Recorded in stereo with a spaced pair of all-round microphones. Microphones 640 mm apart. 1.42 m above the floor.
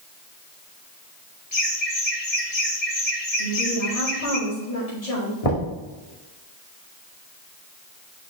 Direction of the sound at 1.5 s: 65° left (ahead or behind).